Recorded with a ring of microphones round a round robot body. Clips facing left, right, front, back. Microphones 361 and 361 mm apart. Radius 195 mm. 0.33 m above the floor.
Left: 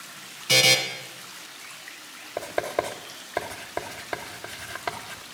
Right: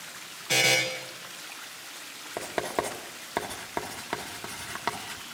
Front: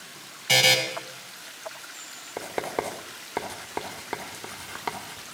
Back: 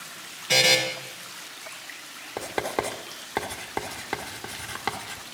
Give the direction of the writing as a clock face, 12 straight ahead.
4 o'clock.